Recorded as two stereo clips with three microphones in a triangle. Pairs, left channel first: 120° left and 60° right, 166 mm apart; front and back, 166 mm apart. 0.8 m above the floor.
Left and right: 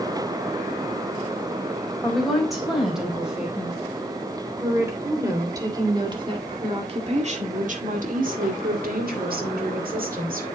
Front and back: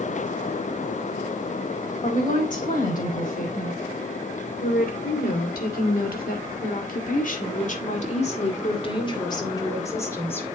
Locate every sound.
2.0 s a woman speaking: 30° left, 4.5 m; by 10.5 s 75° right, 3 m